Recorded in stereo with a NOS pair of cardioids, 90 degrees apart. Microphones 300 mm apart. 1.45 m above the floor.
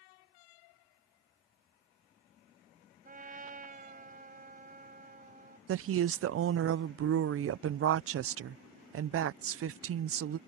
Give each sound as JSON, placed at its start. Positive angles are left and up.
{"t": 3.0, "sound": "a trumpet", "azimuth_deg": -30}
{"t": 5.7, "sound": "a woman speaking", "azimuth_deg": -50}